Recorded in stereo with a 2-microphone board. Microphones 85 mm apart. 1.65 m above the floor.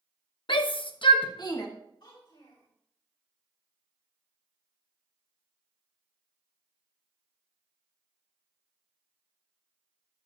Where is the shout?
65° left (ahead or behind), 0.9 m; by 1.7 s 45° left (ahead or behind), 1.5 m.